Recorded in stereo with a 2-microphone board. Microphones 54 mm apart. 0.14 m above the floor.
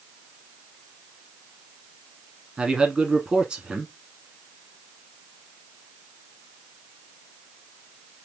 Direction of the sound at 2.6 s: 15° right (ahead or behind).